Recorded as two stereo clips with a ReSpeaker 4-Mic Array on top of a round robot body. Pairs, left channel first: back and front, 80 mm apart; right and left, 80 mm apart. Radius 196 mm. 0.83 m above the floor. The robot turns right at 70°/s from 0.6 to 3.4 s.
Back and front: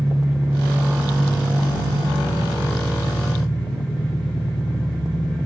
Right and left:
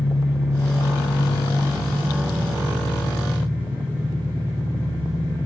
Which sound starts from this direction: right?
An engine running, at 0.0 s.